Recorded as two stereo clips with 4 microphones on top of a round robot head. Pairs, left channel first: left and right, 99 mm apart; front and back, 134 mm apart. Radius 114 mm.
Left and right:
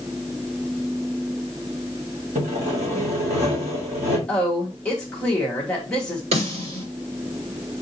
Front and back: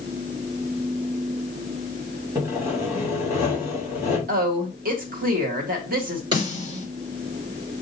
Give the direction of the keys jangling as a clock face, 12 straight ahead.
I don't hear keys jangling.